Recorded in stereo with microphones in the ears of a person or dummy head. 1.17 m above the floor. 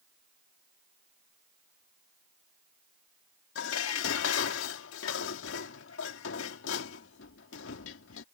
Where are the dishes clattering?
75° left (ahead or behind).